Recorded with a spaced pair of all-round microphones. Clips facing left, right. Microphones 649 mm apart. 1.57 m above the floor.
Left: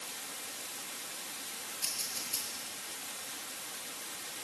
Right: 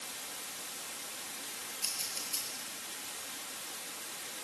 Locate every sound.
1.8 s scissors: 70° left (ahead or behind), 6.5 m